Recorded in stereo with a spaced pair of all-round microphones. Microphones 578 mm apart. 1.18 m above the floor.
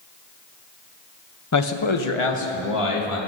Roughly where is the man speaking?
Left.